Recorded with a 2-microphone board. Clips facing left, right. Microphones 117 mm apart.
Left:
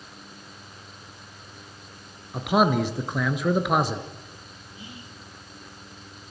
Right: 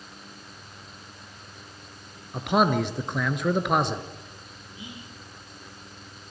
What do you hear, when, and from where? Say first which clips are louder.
2.3 s a man speaking: left 1 dB; 5° left (ahead or behind), 2.0 m
4.8 s whispering: right 2 dB; 20° right (ahead or behind), 5 m